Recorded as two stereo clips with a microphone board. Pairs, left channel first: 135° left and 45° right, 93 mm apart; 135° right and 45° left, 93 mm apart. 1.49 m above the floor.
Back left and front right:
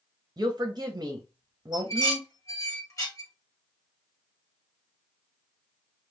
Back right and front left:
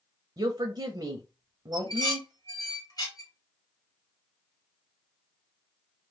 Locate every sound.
0.4 s a woman speaking: 5° left, 0.6 m
1.7 s dishes clattering: 175° right, 1.1 m